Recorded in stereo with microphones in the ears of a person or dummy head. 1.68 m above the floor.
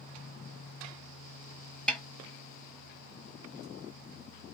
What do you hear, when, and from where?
1.9 s a snare drum: 5° left (ahead or behind), 0.8 m